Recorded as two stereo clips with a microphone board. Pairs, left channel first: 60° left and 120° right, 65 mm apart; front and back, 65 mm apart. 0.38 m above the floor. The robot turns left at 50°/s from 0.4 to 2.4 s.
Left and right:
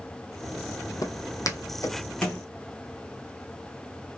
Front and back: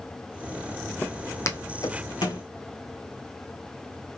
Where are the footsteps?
60° left, 0.7 m; by 2.4 s 10° right, 1.4 m.